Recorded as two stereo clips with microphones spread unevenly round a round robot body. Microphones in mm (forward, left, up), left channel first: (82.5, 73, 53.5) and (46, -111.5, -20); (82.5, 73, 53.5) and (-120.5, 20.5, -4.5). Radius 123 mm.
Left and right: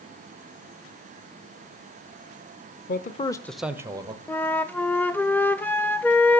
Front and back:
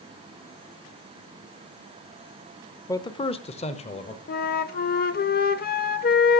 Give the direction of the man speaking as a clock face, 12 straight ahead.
9 o'clock.